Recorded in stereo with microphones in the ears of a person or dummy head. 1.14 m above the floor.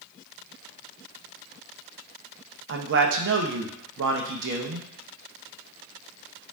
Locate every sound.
2.7 s a man speaking: 70° right (ahead or behind), 0.7 m